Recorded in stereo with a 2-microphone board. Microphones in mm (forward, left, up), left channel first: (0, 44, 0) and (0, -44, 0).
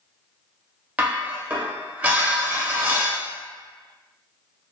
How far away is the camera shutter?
I don't hear a camera shutter.